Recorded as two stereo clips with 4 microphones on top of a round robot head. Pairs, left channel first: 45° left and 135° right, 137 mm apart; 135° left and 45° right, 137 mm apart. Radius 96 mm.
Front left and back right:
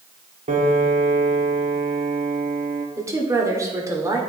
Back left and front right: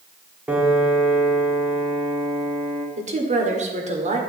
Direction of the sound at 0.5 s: 120° right.